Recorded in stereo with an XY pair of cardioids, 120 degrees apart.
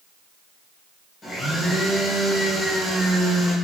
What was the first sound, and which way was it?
A blender, 20° left.